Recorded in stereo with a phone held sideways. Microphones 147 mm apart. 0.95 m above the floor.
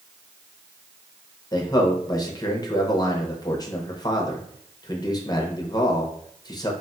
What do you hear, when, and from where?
1.5 s a man speaking: 25° left (ahead or behind), 0.6 m